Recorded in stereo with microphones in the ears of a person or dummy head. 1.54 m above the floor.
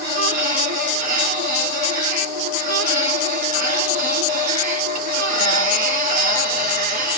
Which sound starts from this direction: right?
A machine running, at 0.0 s.